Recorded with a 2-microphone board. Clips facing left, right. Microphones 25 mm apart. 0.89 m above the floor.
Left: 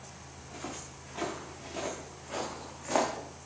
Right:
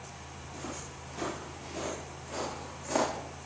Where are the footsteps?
30° left (ahead or behind), 4.5 m; by 3.1 s 20° left (ahead or behind), 3.5 m.